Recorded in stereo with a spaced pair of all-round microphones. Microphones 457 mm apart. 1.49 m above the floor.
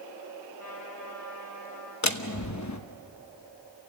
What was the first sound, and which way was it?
A trumpet, 40° left (ahead or behind).